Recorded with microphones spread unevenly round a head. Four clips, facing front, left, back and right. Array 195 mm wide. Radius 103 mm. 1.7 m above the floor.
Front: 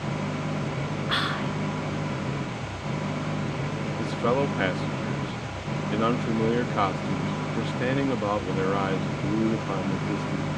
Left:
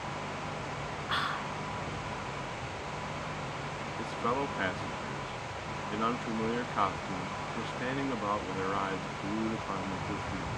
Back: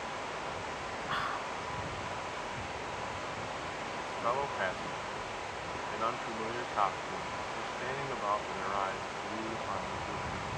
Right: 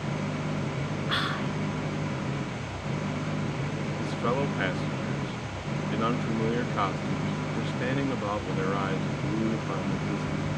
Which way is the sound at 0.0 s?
35° right.